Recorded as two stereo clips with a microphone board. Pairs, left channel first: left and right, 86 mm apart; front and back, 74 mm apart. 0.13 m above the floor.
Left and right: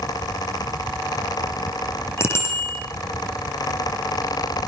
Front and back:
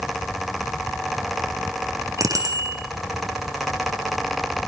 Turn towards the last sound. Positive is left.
turn(degrees=145)